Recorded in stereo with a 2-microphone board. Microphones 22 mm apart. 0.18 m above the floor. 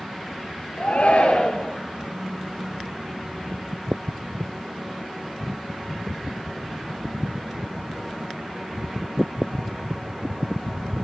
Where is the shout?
70° left (ahead or behind), 3 m.